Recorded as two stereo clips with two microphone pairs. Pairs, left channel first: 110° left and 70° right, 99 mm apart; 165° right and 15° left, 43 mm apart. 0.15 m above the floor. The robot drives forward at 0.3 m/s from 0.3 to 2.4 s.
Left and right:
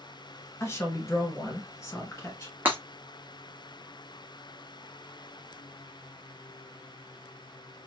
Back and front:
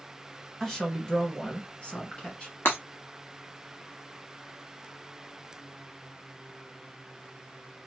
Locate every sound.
0.6 s a woman speaking: 120° left, 1.1 m; by 2.5 s 150° left, 1.3 m
2.6 s breaking glass: 140° right, 1.3 m